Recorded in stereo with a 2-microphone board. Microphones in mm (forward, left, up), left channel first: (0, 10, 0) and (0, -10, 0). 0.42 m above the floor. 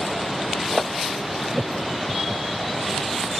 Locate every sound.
1.5 s laughter: 55° right (ahead or behind)